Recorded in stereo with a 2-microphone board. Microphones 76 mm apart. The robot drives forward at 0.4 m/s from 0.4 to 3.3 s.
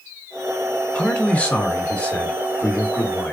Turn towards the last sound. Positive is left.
turn(degrees=15)  # may be behind; listen again after turning